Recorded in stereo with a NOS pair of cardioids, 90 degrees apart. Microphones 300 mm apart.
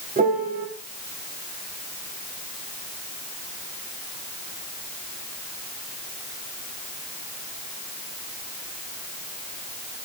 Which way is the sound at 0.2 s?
30° right.